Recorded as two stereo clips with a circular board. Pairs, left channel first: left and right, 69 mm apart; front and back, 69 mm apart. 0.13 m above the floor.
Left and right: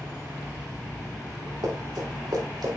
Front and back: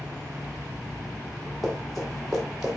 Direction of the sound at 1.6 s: 90° right.